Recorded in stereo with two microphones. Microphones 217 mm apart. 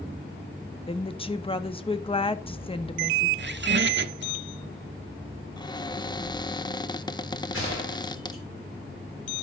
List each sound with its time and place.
0.9 s a woman speaking: 25° left (ahead or behind), 0.8 m
3.4 s a squeak: 55° right (ahead or behind), 0.9 m
5.6 s a cupboard door: 20° left (ahead or behind), 0.5 m
7.5 s a gunshot: 75° left (ahead or behind), 8.5 m